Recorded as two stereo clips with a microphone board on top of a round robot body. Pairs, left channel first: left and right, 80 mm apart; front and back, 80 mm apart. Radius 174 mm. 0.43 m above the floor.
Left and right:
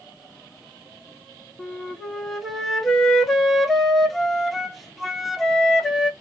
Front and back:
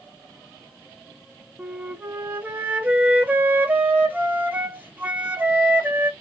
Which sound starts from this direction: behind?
A flute, at 1.6 s.